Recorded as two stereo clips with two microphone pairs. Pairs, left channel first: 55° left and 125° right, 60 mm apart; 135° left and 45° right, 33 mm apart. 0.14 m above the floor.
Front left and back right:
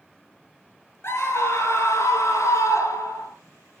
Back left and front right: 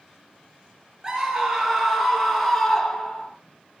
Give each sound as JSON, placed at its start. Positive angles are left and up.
{"t": 1.0, "sound": "a scream", "azimuth_deg": 15, "distance_m": 2.5}